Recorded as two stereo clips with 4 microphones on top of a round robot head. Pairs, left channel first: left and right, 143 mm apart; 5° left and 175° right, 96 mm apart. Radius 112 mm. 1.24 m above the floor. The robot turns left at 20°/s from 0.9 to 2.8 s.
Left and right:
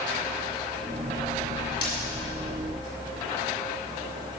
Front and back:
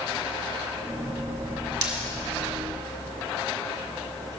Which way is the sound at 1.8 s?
150° left.